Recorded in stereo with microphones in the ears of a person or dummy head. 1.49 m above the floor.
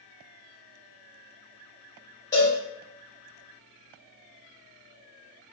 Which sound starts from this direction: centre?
A cowbell, at 2.3 s.